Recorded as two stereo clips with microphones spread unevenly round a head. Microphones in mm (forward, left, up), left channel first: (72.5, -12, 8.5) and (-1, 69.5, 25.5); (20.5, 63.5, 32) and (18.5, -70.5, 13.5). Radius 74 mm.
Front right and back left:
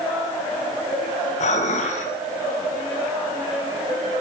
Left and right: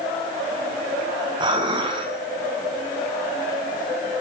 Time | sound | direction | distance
1.4 | dishes clattering | 35° right | 7 m